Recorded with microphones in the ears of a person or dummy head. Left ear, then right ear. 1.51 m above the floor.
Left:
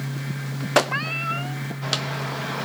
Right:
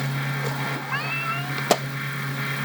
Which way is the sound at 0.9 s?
5° left (ahead or behind).